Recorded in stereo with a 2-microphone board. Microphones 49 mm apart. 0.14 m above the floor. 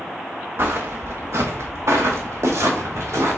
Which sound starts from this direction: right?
Footsteps, at 0.6 s.